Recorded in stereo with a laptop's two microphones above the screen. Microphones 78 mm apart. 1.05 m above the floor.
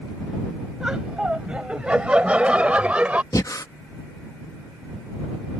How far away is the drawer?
No drawer in this recording.